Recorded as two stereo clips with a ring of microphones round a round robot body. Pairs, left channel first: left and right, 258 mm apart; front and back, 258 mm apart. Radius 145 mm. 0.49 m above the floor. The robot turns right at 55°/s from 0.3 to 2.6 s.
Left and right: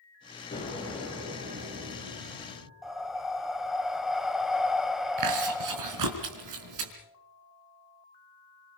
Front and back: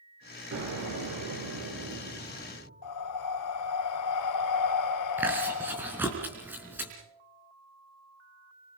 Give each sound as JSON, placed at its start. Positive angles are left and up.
{"t": 0.5, "sound": "an explosion", "azimuth_deg": 150, "distance_m": 6.0}
{"t": 2.8, "sound": "breathing", "azimuth_deg": 0, "distance_m": 1.3}
{"t": 5.2, "sound": "chewing", "azimuth_deg": -95, "distance_m": 4.0}